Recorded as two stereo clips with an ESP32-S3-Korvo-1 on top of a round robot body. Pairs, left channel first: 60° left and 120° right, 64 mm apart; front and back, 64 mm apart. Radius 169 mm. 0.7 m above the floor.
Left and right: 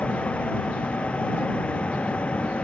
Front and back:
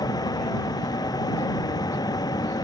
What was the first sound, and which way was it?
A vehicle, 15° right.